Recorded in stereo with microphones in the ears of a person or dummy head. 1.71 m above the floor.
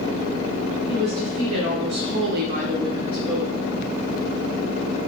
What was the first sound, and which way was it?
A woman speaking, 45° right (ahead or behind).